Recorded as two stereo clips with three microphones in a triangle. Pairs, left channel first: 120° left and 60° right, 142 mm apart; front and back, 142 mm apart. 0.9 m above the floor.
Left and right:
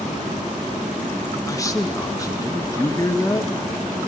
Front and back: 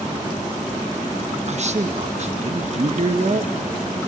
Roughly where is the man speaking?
Behind.